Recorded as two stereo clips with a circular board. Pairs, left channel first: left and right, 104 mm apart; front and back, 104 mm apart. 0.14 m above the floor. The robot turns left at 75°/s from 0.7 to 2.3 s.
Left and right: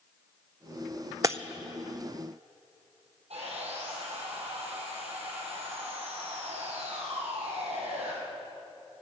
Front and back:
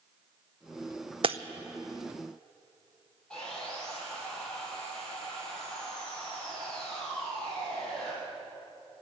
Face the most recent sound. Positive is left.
turn(degrees=-80)